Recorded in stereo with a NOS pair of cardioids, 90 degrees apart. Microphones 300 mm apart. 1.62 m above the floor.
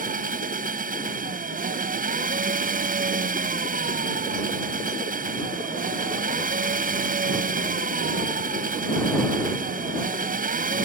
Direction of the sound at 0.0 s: 30° right.